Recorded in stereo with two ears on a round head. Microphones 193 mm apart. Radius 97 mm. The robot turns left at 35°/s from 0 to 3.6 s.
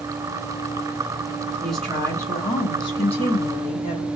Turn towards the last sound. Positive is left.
turn(degrees=110)